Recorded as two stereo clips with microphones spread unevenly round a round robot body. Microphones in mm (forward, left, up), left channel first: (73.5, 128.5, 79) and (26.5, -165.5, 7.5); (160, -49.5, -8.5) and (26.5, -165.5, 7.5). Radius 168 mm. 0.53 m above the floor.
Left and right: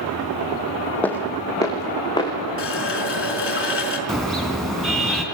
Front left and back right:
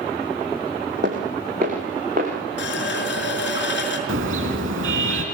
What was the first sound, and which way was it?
Footsteps, 160° left.